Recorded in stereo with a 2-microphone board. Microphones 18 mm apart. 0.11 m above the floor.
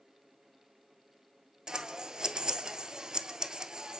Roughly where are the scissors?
Right.